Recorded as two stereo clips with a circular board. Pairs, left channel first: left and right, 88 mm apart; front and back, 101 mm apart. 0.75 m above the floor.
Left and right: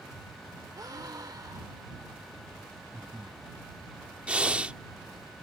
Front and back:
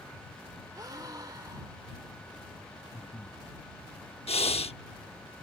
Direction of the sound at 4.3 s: 15° right.